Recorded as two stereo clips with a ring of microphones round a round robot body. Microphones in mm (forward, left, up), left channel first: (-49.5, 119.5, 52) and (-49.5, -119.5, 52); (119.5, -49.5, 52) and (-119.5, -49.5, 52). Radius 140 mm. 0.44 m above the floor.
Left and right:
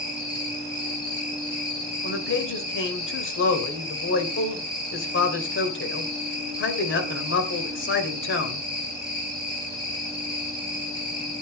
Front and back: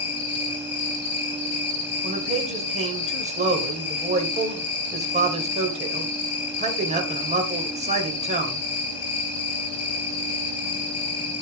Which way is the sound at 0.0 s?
15° left.